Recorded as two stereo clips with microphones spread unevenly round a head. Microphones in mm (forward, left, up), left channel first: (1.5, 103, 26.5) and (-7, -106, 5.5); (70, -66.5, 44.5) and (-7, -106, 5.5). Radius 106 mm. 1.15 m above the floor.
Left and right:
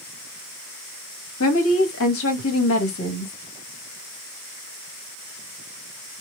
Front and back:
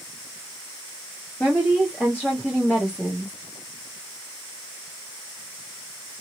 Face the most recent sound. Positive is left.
turn(degrees=115)